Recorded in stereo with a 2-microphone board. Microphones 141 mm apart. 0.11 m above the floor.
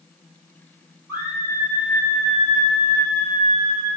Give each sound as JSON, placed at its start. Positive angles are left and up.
{"t": 1.1, "sound": "a scream", "side_deg": -20, "distance_m": 2.5}